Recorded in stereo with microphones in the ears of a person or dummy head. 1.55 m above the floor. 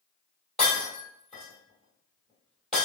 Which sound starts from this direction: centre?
Breaking glass, at 0.6 s.